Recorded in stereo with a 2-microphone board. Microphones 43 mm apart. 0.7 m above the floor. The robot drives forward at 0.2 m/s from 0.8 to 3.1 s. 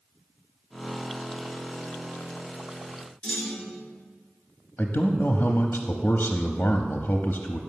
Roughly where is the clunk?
Centre.